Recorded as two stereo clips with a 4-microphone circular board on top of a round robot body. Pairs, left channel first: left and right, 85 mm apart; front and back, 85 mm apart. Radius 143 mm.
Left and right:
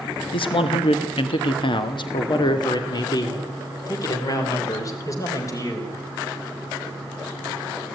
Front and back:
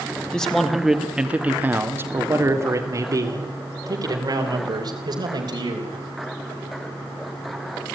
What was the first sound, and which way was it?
A man speaking, 80° left.